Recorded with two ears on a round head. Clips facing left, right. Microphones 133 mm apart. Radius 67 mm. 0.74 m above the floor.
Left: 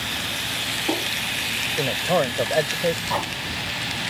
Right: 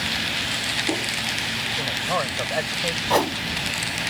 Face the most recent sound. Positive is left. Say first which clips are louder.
# right 6 dB
turn(degrees=-55)  # may be behind; listen again after turning